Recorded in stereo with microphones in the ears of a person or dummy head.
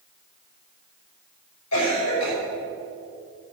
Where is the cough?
85° left, 5 m.